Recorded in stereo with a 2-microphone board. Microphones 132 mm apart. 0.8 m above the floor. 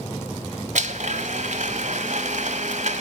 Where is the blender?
70° right (ahead or behind), 1.3 m.